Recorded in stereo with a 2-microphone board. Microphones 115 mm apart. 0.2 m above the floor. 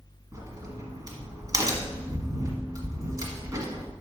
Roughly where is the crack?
Right.